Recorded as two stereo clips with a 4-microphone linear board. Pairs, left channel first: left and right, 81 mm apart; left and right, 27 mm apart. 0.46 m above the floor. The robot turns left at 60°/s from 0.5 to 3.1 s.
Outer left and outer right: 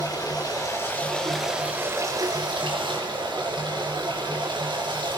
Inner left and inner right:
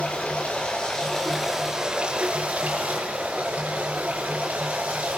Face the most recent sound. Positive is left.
turn(degrees=-100)